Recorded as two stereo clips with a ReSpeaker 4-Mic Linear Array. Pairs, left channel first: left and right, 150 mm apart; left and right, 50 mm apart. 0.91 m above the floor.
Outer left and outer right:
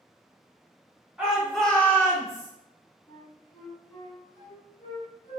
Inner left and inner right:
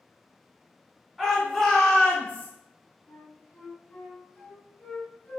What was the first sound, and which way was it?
A shout, 5° right (ahead or behind).